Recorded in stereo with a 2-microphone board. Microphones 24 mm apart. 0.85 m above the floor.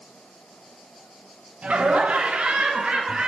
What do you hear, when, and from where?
1.6 s laughter: 55° right (ahead or behind), 1.4 m; by 3.3 s 35° right (ahead or behind), 1.9 m